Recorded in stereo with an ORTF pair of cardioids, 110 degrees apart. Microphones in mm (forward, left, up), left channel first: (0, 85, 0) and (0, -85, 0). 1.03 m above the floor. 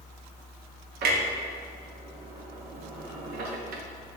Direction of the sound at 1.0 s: 65° right.